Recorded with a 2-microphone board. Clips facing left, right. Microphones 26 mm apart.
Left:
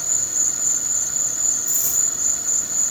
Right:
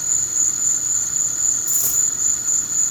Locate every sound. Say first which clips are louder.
0.0 s an insect: right 1 dB; 15° left (ahead or behind), 1.5 m
1.7 s a dropped coin: right 1 dB; 75° right (ahead or behind), 6 m